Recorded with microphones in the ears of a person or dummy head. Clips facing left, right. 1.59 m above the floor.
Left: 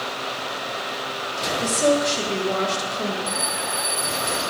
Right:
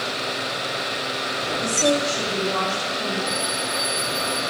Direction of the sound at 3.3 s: 15° left (ahead or behind).